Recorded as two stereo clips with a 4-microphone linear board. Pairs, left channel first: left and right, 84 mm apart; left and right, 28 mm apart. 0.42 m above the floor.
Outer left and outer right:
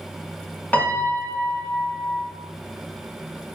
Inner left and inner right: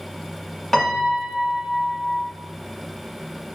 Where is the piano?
15° left (ahead or behind), 0.6 m.